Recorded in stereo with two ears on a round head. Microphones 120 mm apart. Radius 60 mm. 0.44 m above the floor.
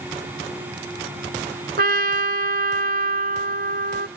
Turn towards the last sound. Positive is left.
turn(degrees=-75)  # may be behind; listen again after turning